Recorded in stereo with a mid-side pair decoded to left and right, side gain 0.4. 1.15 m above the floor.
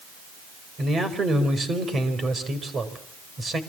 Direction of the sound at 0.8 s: 45° right.